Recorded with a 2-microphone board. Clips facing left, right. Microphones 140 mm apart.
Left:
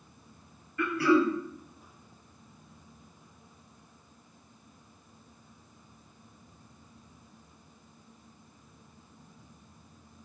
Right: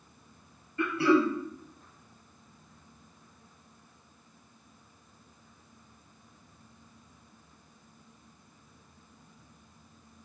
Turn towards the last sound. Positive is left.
turn(degrees=-30)  # may be behind; listen again after turning